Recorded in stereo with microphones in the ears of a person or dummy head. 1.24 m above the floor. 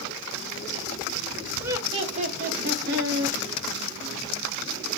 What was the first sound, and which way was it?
Laughter, 10° right (ahead or behind).